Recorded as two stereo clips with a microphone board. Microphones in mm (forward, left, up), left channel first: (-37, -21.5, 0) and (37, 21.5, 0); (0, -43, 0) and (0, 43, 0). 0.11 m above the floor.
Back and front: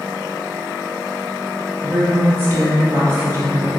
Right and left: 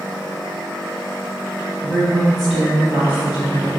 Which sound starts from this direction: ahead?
A woman speaking, at 1.8 s.